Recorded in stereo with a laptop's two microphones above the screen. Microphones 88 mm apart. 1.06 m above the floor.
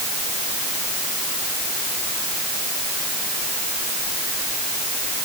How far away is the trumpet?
No trumpet in this recording.